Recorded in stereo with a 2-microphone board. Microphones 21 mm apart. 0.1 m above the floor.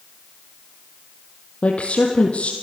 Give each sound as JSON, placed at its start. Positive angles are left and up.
{"t": 1.6, "sound": "a woman speaking", "side_deg": 65, "distance_m": 3.0}